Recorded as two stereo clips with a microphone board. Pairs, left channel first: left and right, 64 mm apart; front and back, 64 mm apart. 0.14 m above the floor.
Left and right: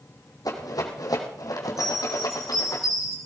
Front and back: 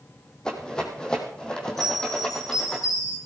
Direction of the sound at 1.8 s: Straight ahead.